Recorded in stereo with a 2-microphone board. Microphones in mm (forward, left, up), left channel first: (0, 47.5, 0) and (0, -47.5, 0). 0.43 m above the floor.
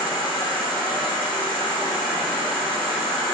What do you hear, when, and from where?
0.0 s an insect: 75° right (ahead or behind), 1.3 m